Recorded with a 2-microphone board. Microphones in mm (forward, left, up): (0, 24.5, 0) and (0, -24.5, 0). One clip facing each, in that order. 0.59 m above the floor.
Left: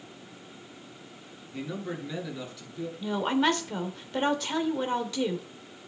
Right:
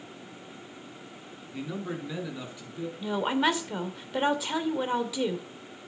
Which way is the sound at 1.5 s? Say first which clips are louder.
Even; 5° right (ahead or behind).